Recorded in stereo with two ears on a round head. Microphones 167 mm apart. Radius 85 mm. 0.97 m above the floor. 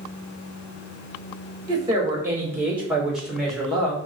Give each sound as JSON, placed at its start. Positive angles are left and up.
{"t": 1.7, "sound": "a woman speaking", "side_deg": -20, "distance_m": 3.0}